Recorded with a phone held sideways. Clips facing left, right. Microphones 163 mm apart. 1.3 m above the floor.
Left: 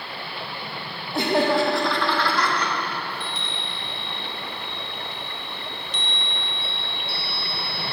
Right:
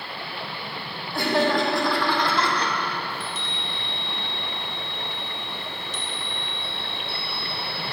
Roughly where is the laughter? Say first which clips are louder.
Left 2 dB; left.